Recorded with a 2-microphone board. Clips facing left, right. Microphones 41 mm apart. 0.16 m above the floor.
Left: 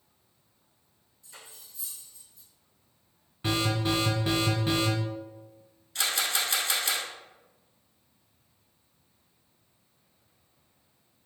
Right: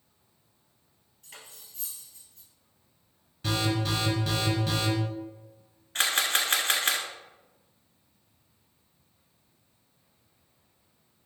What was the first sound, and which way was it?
Cutlery clinking, 60° right (ahead or behind).